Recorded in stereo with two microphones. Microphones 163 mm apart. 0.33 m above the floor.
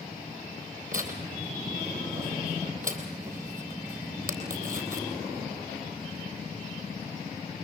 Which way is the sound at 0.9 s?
55° right (ahead or behind).